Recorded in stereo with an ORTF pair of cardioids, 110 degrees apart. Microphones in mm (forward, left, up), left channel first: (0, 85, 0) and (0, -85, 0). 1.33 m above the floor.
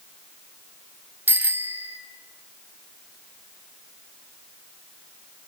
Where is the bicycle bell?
10° right, 2.5 m.